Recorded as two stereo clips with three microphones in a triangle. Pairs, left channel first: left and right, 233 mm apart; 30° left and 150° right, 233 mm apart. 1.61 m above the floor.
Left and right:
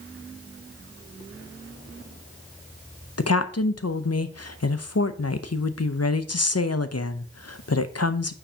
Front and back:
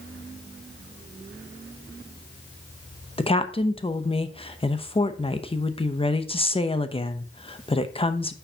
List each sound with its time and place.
3.2 s a woman speaking: 95° left, 0.6 m